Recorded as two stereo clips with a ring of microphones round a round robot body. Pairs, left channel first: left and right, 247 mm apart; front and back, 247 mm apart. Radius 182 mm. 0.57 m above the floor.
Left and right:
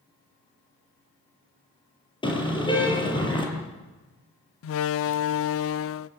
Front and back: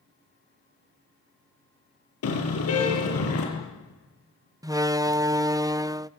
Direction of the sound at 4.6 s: 105° left.